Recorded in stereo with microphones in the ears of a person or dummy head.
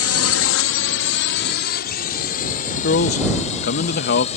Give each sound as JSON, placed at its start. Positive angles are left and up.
{"t": 0.0, "sound": "a drone", "side_deg": 65}
{"t": 2.8, "sound": "a man speaking", "side_deg": 50}